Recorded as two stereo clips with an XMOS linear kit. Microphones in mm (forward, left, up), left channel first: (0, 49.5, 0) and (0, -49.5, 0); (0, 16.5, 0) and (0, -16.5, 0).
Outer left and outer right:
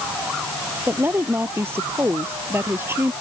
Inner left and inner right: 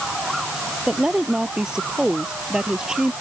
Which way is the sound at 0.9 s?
20° right (ahead or behind).